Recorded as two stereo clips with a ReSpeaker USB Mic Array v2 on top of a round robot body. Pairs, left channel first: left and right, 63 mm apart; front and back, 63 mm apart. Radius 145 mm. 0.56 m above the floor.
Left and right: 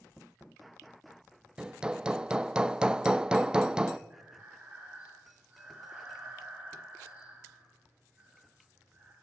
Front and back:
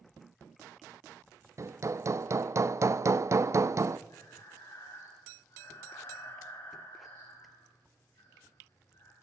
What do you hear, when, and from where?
1.6 s hammering: 165° right, 0.7 m
4.1 s breathing: 25° right, 10 m